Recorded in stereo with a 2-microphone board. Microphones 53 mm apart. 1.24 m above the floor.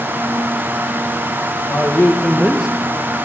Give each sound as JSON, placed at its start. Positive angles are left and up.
{"t": 1.7, "sound": "a man speaking", "side_deg": 35, "distance_m": 1.0}